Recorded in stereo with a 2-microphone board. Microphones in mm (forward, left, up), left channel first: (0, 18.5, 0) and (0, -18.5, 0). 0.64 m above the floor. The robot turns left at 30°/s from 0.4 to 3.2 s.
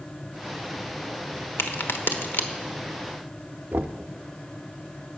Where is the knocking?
55° right (ahead or behind), 0.6 m.